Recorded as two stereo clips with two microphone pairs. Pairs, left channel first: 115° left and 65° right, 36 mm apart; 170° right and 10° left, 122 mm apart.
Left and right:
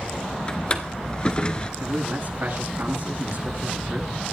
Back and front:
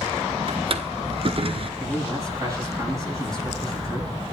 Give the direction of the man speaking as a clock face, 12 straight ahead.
2 o'clock.